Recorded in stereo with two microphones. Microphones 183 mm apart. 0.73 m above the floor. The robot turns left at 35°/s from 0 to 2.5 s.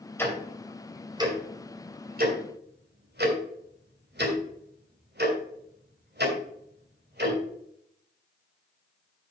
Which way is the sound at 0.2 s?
10° left (ahead or behind).